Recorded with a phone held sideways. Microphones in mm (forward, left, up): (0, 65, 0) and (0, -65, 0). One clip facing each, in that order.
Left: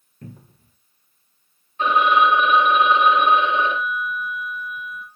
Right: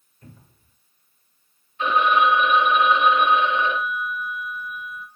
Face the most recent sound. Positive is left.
turn(degrees=80)